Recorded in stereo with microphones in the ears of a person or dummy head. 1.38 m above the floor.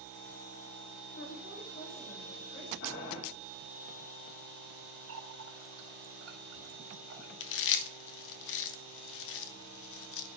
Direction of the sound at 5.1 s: 80° right.